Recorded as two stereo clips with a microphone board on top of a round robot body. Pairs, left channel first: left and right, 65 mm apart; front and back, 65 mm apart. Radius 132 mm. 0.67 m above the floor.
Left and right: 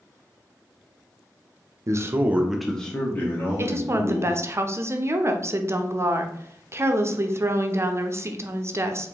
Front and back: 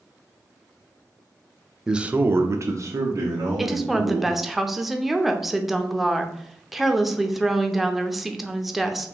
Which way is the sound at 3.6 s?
95° right.